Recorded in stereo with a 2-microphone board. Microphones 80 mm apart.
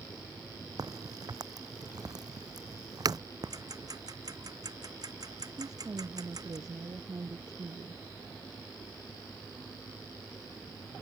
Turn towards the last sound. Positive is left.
turn(degrees=-50)  # may be behind; listen again after turning